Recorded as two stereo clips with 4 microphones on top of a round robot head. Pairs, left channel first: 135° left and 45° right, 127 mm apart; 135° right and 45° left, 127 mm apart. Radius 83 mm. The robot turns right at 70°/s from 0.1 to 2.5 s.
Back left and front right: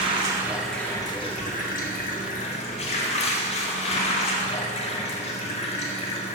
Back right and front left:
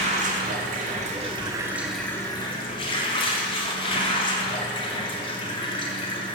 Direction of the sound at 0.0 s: 5° left.